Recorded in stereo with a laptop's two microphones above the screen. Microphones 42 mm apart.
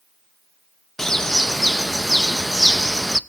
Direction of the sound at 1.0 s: 10° left (ahead or behind).